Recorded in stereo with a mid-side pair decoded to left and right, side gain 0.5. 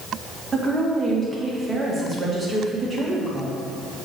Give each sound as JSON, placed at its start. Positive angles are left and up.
{"t": 0.5, "sound": "a woman speaking", "azimuth_deg": -20, "distance_m": 2.0}